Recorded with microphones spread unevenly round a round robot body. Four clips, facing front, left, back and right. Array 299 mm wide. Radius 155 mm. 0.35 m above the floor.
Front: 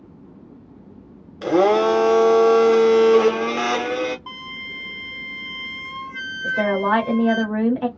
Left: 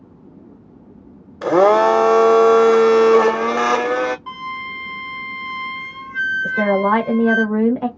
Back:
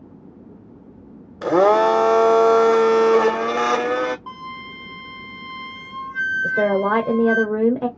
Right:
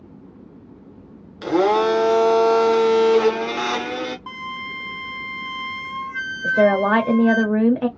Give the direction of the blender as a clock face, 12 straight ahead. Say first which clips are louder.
Left 5 dB, back 1 dB; 8 o'clock.